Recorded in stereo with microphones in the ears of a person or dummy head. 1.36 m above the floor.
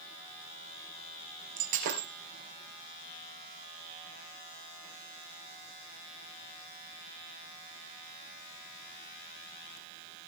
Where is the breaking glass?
55° right (ahead or behind), 4 m.